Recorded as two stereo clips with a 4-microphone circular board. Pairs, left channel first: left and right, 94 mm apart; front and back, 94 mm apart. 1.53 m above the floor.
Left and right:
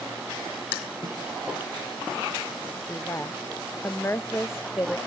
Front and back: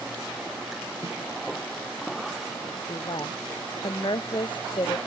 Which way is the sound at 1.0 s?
125° left.